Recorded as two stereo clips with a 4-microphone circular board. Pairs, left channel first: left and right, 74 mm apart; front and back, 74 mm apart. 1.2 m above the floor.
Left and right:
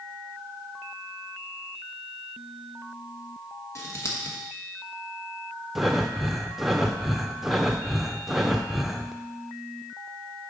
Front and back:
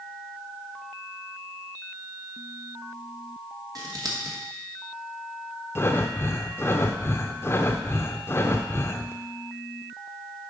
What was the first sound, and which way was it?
Scissors, 140° left.